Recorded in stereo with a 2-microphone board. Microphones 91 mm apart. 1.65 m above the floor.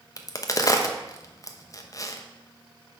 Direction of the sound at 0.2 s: 40° left (ahead or behind).